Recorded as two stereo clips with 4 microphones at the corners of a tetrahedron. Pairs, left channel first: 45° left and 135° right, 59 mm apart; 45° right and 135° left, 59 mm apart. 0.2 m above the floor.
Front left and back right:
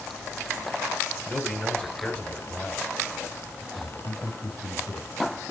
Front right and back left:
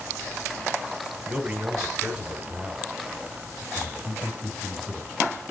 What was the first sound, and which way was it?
A man speaking, 75° left.